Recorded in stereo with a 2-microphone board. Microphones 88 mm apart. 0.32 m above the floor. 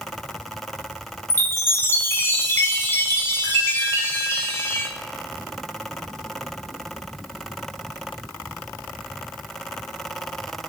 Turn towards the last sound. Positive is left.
turn(degrees=35)  # may be behind; listen again after turning